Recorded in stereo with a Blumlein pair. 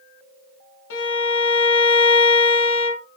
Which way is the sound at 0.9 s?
55° left.